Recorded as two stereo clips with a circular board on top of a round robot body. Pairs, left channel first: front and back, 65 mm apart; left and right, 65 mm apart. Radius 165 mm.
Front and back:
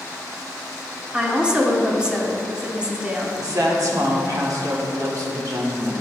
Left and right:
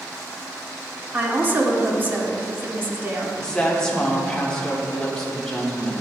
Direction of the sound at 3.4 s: 170° left.